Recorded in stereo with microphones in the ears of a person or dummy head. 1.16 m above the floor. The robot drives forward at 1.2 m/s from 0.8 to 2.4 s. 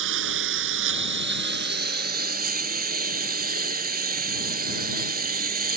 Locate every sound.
0.0 s a lawn mower: 70° right (ahead or behind); by 5.8 s 50° right (ahead or behind)